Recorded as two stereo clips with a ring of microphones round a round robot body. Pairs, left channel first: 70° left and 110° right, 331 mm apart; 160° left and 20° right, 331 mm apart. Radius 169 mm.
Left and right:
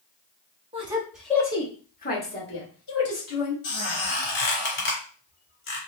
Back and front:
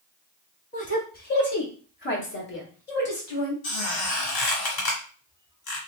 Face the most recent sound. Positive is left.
turn(degrees=125)